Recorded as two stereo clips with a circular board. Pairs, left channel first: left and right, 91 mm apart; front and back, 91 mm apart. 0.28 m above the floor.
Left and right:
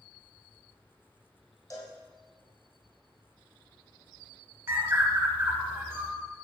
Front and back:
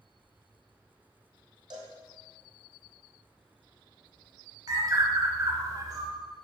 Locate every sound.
1.7 s a cowbell: 150° left, 1.6 m
4.7 s a bird: 145° right, 1.0 m